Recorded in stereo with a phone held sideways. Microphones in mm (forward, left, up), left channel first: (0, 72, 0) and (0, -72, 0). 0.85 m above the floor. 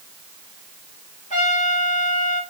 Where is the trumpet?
60° left (ahead or behind), 3.5 m.